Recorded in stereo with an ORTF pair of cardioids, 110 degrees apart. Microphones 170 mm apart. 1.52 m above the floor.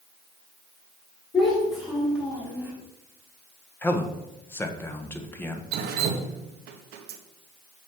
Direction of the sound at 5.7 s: 70° right.